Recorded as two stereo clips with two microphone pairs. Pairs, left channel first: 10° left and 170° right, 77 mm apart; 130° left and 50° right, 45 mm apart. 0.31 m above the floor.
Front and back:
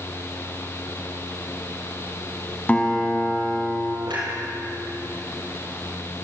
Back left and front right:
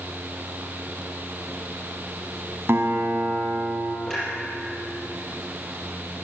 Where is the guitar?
55° right, 2.5 m.